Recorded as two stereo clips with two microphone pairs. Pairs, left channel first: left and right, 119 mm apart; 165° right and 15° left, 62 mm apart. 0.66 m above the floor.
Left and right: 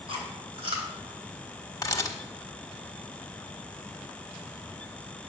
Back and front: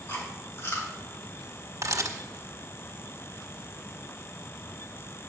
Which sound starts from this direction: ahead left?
A camera shutter, at 1.8 s.